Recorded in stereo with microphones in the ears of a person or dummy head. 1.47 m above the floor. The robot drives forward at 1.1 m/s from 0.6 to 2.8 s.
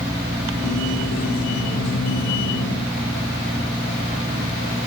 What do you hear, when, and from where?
Only background noise.